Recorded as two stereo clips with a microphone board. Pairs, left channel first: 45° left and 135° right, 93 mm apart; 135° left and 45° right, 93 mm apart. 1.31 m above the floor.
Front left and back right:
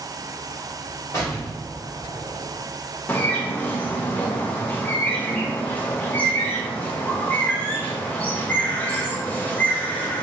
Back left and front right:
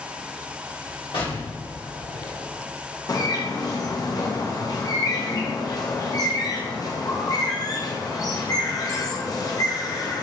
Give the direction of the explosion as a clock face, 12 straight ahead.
9 o'clock.